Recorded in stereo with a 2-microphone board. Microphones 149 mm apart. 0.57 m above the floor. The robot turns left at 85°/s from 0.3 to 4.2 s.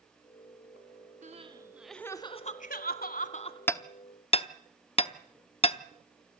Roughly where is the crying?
Behind right.